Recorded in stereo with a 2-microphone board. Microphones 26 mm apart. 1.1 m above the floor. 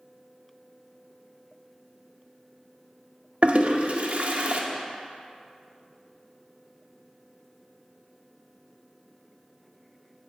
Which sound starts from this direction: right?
A toilet flushing, at 3.4 s.